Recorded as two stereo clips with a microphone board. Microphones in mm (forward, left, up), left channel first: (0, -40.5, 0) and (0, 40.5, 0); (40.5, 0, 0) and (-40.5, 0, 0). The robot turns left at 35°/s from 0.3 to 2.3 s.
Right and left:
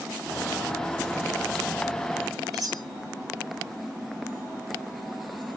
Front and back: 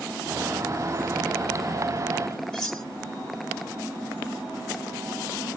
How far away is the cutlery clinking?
About 1.5 m.